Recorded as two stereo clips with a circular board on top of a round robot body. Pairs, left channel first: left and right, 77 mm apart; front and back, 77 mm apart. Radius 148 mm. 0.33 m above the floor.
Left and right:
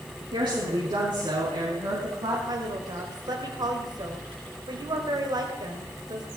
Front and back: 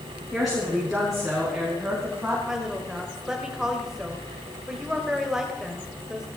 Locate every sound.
0.3 s a woman speaking: 90° right, 6 m; by 2.4 s 95° right, 5 m
2.5 s a woman speaking: 100° right, 2.5 m